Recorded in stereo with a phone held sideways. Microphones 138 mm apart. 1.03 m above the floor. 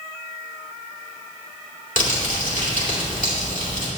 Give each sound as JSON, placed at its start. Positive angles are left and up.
{"t": 2.0, "sound": "crumpling", "side_deg": 75, "distance_m": 2.5}